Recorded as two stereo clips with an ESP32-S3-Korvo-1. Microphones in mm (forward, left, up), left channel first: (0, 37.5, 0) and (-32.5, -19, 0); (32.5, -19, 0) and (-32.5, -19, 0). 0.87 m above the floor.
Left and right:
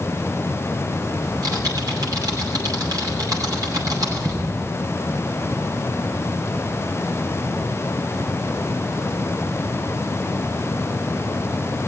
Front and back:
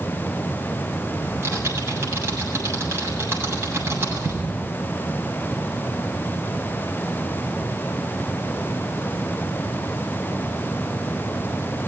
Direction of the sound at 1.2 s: 130° right.